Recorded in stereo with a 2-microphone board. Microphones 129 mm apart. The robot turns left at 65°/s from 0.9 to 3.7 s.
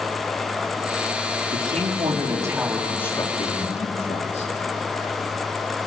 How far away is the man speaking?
About 4 m.